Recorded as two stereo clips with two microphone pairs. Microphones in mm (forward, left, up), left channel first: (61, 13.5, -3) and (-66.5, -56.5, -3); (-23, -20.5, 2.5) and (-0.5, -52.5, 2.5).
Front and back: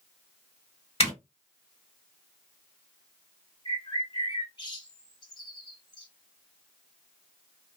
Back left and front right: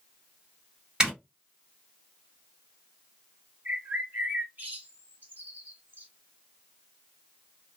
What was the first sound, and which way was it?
A zipper, 10° left.